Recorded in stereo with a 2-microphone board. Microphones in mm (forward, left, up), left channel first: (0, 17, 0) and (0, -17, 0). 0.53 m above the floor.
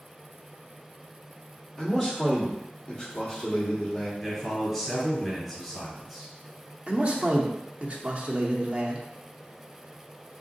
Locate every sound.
1.8 s a man speaking: 20° left (ahead or behind), 1.4 m
4.2 s a man speaking: 5° left (ahead or behind), 1.9 m
6.9 s a man speaking: 40° right (ahead or behind), 0.7 m